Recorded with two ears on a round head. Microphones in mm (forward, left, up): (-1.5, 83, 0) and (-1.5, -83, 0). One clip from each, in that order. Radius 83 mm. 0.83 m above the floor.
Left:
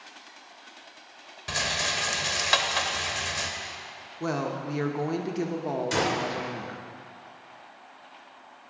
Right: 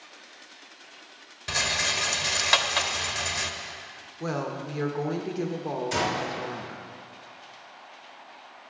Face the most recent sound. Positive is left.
turn(degrees=30)  # may be behind; listen again after turning